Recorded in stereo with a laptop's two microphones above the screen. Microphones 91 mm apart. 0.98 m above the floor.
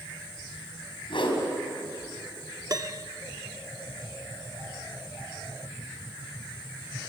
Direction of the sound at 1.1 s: 70° left (ahead or behind).